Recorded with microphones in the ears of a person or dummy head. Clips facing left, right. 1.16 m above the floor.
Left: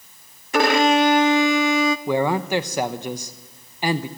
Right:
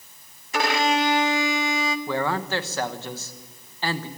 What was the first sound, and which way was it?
A violin, 50° left (ahead or behind).